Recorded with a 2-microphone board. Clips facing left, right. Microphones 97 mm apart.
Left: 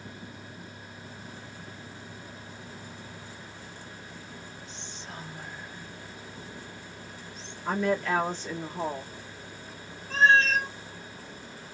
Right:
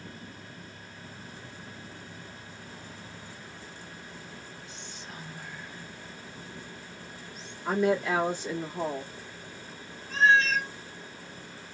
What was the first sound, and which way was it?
Whispering, 25° left (ahead or behind).